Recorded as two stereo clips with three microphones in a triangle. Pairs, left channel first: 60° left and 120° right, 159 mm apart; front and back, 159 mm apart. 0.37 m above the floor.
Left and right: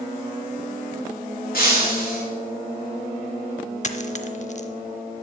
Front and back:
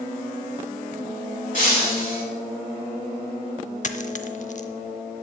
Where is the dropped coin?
30° left, 0.7 m.